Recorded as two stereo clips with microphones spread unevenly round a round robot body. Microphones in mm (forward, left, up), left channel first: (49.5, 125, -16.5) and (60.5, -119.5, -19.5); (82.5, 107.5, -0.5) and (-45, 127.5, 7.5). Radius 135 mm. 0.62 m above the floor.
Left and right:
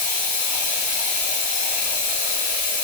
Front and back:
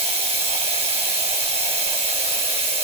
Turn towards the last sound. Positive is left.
turn(degrees=125)